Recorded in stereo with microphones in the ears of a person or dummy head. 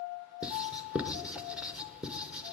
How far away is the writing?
About 0.8 m.